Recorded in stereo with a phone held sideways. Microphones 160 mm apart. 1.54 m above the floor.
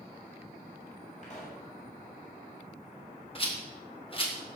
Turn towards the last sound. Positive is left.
turn(degrees=35)  # may be behind; listen again after turning